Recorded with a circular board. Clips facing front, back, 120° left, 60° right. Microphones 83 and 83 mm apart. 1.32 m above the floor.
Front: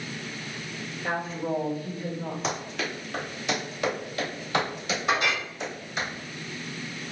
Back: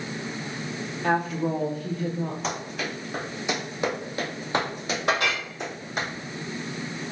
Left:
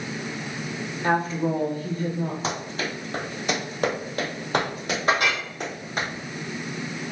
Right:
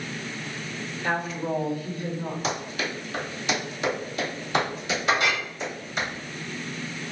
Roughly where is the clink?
Behind.